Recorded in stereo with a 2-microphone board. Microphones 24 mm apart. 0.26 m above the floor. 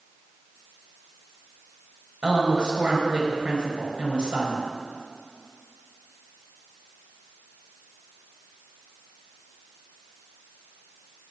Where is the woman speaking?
40° right (ahead or behind), 4.5 m.